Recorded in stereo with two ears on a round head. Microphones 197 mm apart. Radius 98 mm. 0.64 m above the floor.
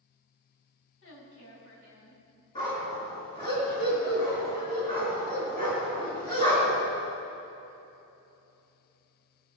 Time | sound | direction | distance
1.0 | a woman speaking | 65° left (ahead or behind) | 4 m
2.5 | a dog barking | 25° left (ahead or behind) | 3.5 m